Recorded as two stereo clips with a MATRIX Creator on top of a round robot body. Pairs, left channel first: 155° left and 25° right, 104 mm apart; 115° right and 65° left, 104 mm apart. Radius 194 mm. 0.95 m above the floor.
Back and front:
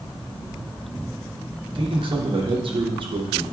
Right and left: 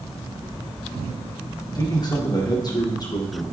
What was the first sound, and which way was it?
A man speaking, 60° right.